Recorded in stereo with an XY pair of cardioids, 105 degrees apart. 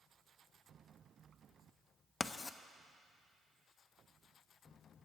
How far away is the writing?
About 0.6 m.